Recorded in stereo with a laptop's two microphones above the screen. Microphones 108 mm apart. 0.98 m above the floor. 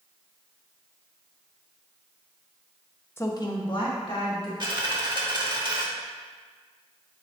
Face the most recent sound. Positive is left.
turn(degrees=-45)  # may be behind; listen again after turning